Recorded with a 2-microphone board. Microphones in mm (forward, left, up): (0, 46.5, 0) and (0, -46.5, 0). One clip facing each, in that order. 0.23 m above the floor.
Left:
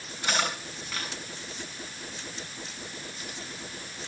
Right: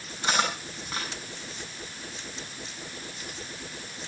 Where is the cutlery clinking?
30° right (ahead or behind), 8.5 m.